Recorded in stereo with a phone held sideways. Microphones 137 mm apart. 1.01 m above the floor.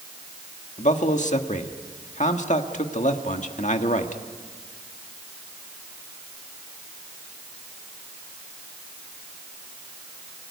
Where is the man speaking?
60° left (ahead or behind), 1.7 m.